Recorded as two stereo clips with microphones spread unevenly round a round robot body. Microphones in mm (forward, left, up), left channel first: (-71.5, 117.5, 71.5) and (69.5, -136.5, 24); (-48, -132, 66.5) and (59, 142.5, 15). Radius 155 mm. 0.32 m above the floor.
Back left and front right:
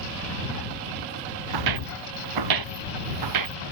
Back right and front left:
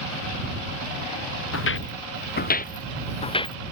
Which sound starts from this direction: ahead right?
Footsteps, at 1.5 s.